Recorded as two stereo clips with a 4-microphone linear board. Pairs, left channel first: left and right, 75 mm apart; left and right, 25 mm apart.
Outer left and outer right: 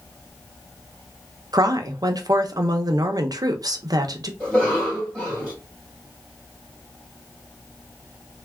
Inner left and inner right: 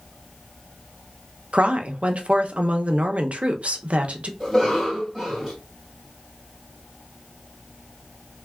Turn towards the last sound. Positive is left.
turn(degrees=10)  # may be behind; listen again after turning